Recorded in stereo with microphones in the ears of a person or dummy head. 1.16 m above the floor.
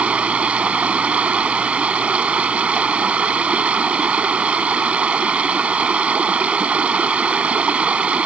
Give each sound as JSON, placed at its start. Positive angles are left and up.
{"t": 0.0, "sound": "running water", "side_deg": -5}